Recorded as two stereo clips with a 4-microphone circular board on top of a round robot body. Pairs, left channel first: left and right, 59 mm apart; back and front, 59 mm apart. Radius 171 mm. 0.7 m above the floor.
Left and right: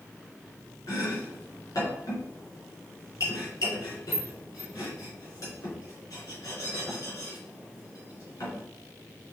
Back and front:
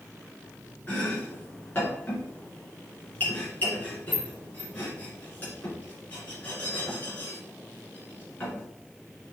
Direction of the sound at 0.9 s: 115° left.